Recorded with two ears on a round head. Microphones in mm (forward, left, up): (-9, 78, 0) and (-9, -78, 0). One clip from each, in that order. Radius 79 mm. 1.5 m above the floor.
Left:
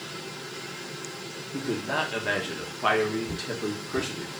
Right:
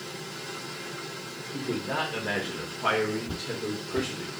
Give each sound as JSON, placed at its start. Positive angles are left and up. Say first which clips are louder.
{"t": 1.5, "sound": "a man speaking", "louder": "left 2 dB", "side_deg": 35, "distance_m": 1.3}
{"t": 3.3, "sound": "footsteps", "louder": "left 1 dB", "side_deg": -15, "distance_m": 1.7}